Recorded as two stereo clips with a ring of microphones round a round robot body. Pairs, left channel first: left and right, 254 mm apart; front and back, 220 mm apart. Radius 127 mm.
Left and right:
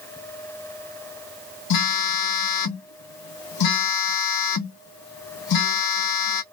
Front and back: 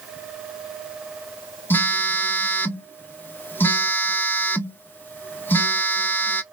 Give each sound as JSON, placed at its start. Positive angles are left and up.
{"t": 1.7, "sound": "a phone buzzing", "azimuth_deg": 80, "distance_m": 0.6}